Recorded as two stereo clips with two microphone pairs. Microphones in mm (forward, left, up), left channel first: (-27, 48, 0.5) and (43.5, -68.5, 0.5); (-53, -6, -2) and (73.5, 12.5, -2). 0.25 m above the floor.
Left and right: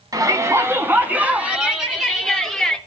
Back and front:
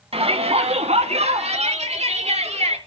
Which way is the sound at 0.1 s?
5° right.